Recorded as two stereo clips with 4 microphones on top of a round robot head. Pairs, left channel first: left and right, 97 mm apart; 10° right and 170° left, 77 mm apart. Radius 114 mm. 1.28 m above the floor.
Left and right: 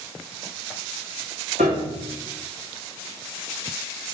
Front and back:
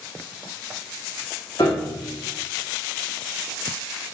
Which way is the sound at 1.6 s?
75° right.